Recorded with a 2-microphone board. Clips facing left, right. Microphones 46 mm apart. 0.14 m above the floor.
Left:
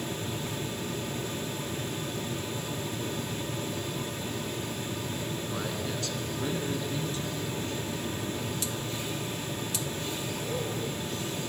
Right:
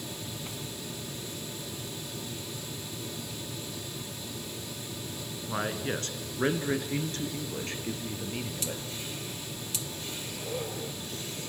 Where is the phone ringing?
No phone ringing in this recording.